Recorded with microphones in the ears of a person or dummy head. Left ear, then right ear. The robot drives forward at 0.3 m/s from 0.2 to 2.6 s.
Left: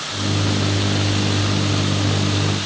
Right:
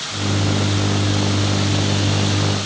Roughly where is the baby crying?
No baby crying in this recording.